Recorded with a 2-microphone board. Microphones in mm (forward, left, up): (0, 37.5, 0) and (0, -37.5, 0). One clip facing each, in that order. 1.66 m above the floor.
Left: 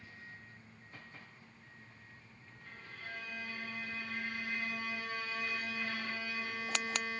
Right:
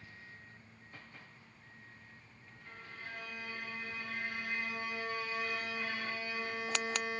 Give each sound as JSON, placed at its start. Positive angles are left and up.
{"t": 2.6, "sound": "a violin", "side_deg": -30, "distance_m": 1.2}